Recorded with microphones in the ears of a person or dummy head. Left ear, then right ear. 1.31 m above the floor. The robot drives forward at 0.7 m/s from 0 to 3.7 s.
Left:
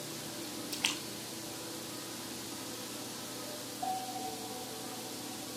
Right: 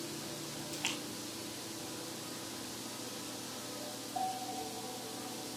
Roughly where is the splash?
Left.